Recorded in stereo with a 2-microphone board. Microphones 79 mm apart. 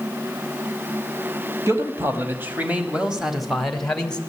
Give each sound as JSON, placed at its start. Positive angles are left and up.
{"t": 1.7, "sound": "a man speaking", "side_deg": -40, "distance_m": 1.7}